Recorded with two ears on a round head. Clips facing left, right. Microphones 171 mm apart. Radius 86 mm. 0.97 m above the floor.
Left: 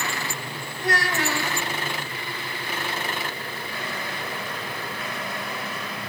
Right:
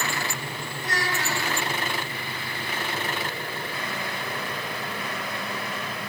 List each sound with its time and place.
0.8 s a child speaking: 50° left (ahead or behind), 4 m